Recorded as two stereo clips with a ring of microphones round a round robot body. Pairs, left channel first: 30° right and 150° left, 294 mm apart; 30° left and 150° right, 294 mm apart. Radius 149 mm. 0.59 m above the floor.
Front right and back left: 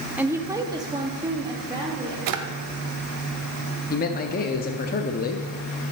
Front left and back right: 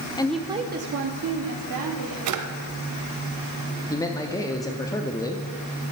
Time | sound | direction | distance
0.2 | a woman speaking | 75° left | 0.6 m
2.3 | a drawer | 175° left | 0.9 m
3.9 | a man speaking | 35° right | 0.7 m